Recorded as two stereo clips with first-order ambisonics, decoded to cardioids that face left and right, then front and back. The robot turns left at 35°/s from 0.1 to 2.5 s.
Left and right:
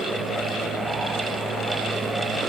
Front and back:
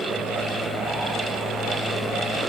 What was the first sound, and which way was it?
Only background noise.